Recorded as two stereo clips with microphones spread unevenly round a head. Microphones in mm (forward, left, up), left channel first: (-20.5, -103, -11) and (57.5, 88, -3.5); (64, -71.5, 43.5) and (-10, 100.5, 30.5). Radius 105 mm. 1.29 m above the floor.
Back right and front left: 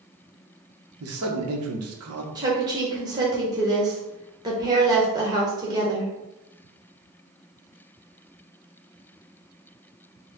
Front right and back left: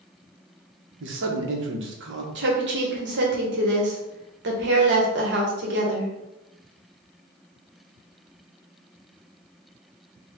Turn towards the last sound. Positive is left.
turn(degrees=140)